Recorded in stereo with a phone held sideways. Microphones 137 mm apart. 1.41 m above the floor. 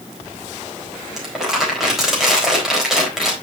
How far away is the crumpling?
About 4 m.